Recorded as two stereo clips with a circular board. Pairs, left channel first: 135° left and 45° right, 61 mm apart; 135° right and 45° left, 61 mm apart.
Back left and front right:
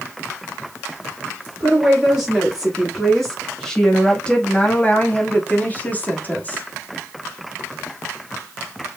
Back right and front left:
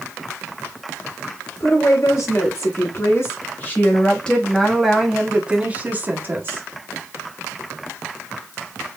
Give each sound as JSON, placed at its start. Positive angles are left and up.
{"t": 1.6, "sound": "a woman speaking", "azimuth_deg": -130, "distance_m": 1.9}